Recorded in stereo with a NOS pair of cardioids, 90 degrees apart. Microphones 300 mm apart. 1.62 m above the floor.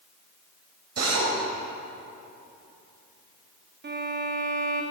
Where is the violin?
40° right, 2 m.